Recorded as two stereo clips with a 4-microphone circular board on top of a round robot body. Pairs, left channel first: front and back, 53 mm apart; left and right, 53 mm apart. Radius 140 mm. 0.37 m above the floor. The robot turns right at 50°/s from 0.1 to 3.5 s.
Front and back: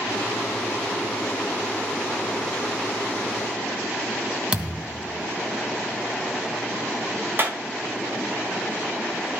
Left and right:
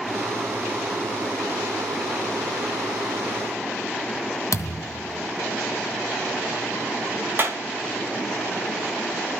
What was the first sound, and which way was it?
A thud, 110° left.